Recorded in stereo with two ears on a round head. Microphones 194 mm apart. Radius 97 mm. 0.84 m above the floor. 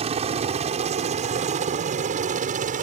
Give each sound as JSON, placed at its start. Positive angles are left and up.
{"t": 0.0, "sound": "a helicopter", "side_deg": -30}